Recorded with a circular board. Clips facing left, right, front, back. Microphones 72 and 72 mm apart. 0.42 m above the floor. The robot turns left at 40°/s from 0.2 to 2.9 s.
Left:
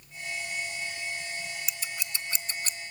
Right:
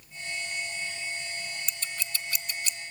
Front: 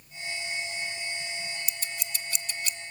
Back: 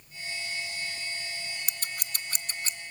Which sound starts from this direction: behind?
Scissors, at 1.7 s.